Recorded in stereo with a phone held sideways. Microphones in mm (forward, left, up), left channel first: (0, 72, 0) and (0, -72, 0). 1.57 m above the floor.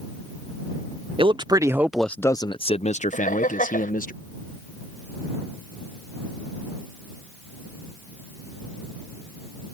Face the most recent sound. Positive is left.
turn(degrees=70)  # may be behind; listen again after turning